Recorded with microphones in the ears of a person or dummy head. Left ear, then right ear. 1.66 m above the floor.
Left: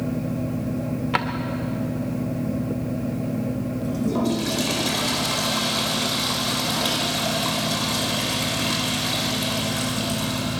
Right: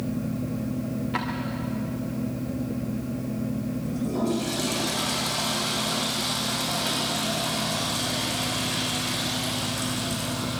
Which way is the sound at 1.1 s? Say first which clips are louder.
Left 6 dB; 40° left (ahead or behind).